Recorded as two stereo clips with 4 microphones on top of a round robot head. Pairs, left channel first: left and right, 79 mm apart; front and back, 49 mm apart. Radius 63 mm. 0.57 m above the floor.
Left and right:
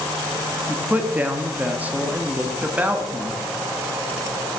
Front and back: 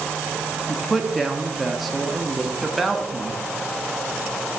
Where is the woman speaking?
95° right, 1.0 m.